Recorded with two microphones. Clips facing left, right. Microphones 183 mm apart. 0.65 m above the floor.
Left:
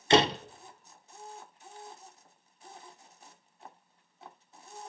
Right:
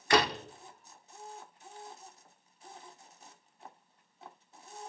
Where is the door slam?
25° left (ahead or behind), 0.8 m.